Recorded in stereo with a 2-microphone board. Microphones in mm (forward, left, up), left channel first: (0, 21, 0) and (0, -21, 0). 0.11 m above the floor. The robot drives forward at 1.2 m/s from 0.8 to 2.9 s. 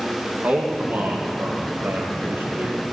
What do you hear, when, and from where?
0.4 s a man speaking: 40° right (ahead or behind), 3 m; by 2.8 s 60° right (ahead or behind), 2.5 m